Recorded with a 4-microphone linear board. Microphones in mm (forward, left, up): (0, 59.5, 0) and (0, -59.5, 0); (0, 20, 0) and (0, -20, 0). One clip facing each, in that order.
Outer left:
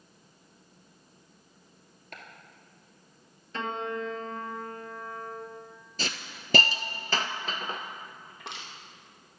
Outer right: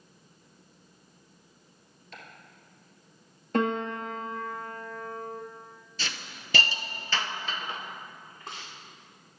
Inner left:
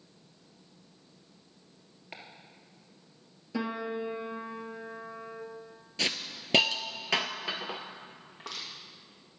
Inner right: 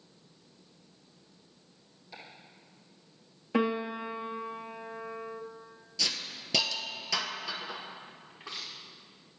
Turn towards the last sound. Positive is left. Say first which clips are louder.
# outer left 1 dB, inner left 1 dB
turn(degrees=75)  # may be behind; listen again after turning